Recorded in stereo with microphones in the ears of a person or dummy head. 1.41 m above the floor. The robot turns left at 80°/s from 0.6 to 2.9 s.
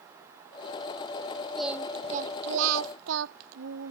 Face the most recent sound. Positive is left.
turn(degrees=-100)